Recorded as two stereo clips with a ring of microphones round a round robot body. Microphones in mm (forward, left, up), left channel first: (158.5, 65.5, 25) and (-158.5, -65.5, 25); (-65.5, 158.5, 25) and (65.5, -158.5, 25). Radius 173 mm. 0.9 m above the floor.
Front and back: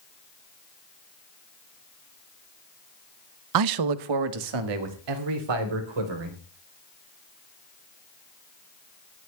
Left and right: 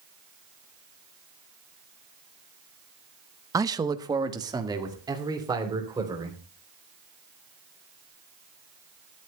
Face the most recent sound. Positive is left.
turn(degrees=-145)